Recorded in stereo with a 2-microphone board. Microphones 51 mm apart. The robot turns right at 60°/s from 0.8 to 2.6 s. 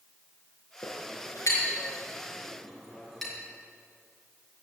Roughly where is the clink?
Left.